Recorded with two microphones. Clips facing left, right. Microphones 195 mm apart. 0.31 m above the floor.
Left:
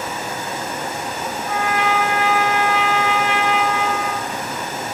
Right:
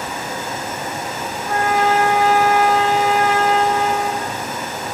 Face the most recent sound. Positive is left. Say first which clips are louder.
# right 4 dB
turn(degrees=-45)  # may be behind; listen again after turning